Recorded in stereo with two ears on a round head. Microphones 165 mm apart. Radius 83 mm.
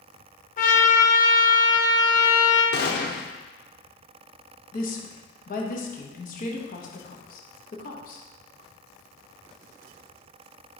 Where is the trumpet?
45° left (ahead or behind), 1.2 m.